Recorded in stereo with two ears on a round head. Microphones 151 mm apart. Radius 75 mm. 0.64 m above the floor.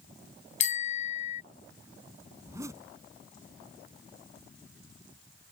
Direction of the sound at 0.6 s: 45° left (ahead or behind).